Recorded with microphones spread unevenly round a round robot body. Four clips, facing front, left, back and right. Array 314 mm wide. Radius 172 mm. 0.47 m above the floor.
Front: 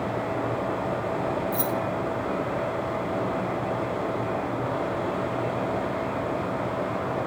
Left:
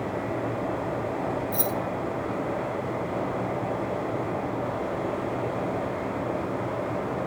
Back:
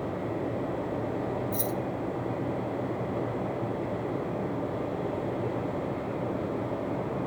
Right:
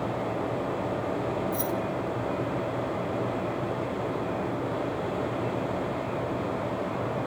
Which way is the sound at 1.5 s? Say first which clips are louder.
Left 1 dB, front 4 dB; 130° left.